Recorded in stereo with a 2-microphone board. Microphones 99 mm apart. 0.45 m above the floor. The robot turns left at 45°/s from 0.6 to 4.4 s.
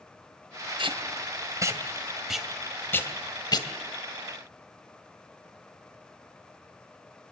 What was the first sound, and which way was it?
Tape being pulled, 65° right (ahead or behind).